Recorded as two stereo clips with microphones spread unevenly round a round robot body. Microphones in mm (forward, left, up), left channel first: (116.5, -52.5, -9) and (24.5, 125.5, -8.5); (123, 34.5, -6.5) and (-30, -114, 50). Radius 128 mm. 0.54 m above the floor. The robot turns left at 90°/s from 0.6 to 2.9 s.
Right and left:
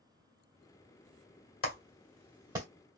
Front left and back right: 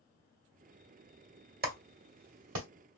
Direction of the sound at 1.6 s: 85° right.